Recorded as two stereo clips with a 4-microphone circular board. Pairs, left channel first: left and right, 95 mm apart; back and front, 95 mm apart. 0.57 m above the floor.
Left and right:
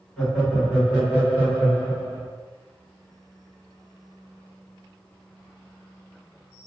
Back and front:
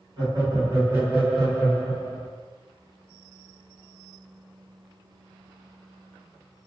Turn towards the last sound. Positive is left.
turn(degrees=-135)